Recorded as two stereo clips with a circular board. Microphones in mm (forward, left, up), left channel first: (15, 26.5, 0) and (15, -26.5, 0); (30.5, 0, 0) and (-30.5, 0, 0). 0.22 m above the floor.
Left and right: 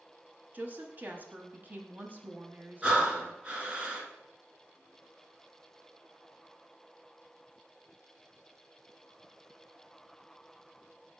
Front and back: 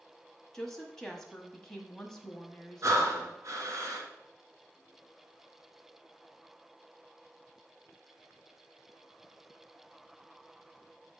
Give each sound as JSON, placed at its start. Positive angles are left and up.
{"t": 0.5, "sound": "a woman speaking", "azimuth_deg": -75, "distance_m": 1.1}
{"t": 2.8, "sound": "breathing", "azimuth_deg": -155, "distance_m": 1.4}